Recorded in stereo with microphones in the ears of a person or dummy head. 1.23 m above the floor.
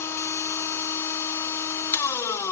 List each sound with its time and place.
0.0 s a machine running: 15° left (ahead or behind), 0.9 m